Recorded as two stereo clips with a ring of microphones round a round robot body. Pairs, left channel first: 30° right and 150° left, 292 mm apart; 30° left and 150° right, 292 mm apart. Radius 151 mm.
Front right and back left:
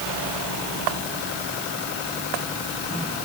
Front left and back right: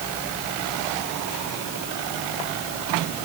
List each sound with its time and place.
Only background noise.